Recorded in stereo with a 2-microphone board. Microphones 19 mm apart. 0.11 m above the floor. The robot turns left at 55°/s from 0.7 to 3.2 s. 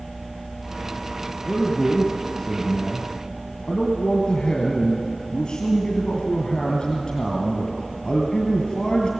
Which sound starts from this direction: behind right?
A man speaking, at 1.5 s.